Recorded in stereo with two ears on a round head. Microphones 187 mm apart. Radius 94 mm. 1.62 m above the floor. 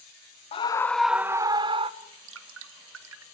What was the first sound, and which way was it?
A scream, 30° left (ahead or behind).